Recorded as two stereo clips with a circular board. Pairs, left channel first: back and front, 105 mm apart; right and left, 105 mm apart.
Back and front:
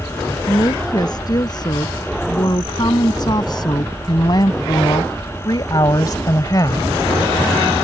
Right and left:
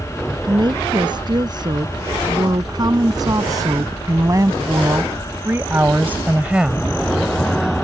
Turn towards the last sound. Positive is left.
turn(degrees=170)